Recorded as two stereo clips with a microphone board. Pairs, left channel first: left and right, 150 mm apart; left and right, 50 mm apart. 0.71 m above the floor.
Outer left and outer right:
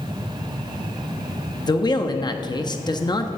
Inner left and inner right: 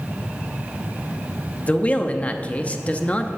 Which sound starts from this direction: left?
A man speaking, at 1.7 s.